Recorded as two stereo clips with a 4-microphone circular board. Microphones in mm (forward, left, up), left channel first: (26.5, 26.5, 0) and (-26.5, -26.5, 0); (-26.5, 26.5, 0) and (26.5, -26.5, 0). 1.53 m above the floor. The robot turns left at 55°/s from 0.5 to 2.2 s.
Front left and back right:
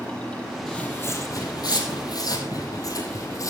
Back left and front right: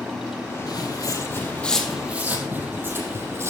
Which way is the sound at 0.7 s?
125° left.